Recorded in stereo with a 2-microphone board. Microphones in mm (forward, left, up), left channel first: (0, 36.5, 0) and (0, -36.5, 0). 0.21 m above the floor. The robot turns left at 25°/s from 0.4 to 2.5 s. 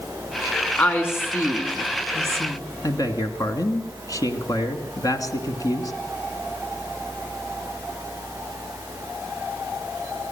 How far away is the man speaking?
About 2 m.